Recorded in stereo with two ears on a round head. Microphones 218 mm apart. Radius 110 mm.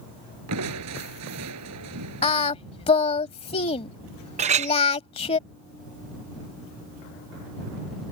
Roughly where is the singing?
Left.